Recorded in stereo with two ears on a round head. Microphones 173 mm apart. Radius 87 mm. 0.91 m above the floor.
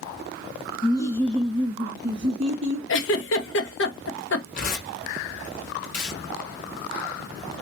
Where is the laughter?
25° left (ahead or behind), 0.7 m; by 2.8 s 40° right (ahead or behind), 1.1 m.